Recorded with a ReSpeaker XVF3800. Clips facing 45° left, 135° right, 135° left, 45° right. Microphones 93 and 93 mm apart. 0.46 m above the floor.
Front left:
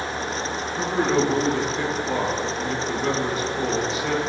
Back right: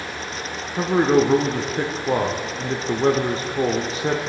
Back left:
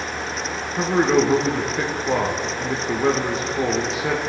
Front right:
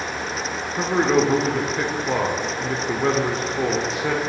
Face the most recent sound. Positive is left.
turn(degrees=-135)